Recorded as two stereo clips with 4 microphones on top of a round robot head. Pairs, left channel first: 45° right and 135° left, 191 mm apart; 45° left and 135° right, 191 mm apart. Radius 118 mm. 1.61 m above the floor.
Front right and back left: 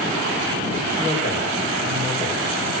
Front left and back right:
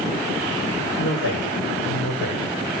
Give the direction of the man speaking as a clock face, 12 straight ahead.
9 o'clock.